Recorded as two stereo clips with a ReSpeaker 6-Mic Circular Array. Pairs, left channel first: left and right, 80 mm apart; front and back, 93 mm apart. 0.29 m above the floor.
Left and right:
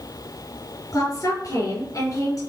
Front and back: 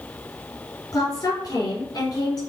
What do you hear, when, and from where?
0.9 s a woman speaking: 40° left, 4 m